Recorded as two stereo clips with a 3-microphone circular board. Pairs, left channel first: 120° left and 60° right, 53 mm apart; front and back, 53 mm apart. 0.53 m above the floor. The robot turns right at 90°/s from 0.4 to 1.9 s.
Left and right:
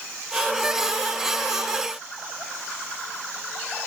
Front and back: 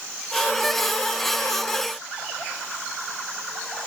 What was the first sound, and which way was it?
Only background noise.